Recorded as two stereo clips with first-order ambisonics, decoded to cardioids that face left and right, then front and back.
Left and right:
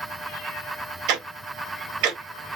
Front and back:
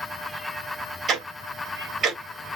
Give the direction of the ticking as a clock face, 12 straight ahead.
4 o'clock.